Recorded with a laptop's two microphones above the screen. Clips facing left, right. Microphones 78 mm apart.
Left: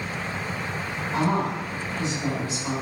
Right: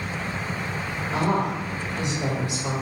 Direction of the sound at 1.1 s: 75° right (ahead or behind).